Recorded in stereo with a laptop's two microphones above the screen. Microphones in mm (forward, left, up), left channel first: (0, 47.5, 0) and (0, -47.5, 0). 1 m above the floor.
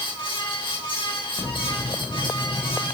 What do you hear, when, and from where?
0.0 s a fan: 60° left (ahead or behind), 2.5 m